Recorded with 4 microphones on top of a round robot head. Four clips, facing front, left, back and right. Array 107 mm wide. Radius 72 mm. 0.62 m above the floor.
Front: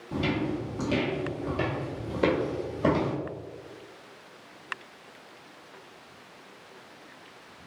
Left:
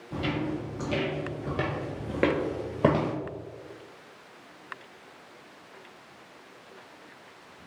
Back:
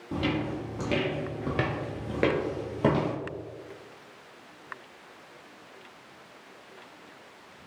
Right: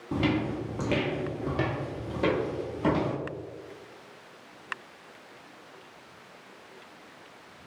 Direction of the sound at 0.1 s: 110° right.